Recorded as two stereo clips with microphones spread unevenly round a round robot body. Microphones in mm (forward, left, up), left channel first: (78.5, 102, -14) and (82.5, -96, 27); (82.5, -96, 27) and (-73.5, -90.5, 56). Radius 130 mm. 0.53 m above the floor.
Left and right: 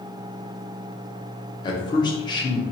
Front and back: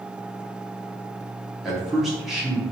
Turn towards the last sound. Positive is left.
turn(degrees=75)